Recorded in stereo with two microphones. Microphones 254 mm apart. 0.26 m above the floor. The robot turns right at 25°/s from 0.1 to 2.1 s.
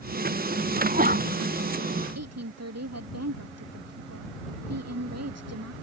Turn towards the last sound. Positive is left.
turn(degrees=-80)